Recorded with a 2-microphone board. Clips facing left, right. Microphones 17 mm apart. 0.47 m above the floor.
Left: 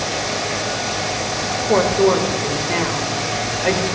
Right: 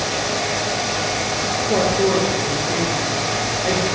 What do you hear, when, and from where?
1.7 s a woman speaking: 55° left (ahead or behind), 2 m